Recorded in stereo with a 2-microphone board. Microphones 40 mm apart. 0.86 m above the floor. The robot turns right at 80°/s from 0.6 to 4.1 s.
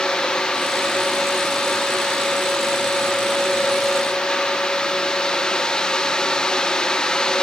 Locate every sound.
Only background noise.